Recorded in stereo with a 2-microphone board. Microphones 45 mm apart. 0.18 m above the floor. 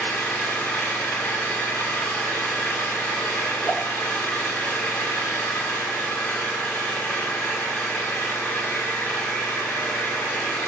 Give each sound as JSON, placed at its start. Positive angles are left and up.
{"t": 0.0, "sound": "an engine running", "side_deg": 40, "distance_m": 6.0}
{"t": 3.6, "sound": "a whoosh", "side_deg": 60, "distance_m": 4.0}